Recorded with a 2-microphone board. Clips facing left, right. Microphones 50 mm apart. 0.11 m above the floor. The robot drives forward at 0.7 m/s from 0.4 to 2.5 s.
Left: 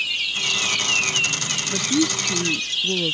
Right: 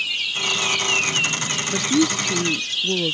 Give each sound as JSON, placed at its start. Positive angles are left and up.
{"t": 1.7, "sound": "a woman speaking", "side_deg": -10}